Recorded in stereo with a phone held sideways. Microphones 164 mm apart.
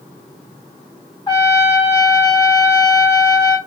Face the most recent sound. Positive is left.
turn(degrees=25)  # may be behind; listen again after turning